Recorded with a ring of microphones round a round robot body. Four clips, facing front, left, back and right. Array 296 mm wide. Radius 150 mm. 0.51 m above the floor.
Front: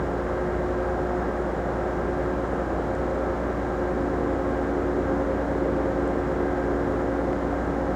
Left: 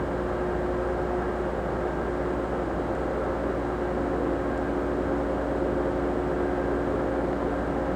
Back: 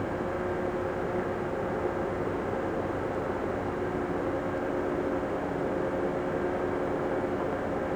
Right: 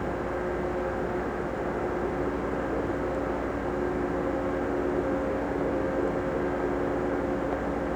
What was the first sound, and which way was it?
Only background noise.